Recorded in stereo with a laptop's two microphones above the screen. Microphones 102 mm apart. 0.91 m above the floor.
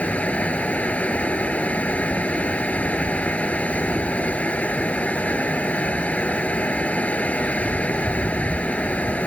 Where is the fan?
15° left (ahead or behind).